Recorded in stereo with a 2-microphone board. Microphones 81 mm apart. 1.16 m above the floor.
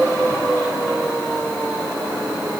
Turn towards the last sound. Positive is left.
No sound to turn to.